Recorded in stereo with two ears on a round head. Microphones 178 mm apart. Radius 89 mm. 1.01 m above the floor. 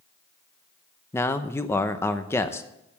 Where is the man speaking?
10° left (ahead or behind), 0.8 m.